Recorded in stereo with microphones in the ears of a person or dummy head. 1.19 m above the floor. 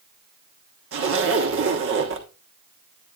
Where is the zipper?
60° right (ahead or behind), 1.3 m.